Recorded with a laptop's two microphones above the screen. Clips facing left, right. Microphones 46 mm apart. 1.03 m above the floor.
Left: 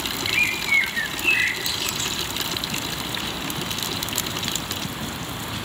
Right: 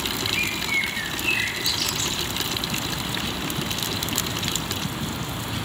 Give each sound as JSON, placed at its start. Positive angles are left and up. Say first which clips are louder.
{"t": 0.3, "sound": "a bird", "louder": "left 6 dB", "side_deg": 20, "distance_m": 3.0}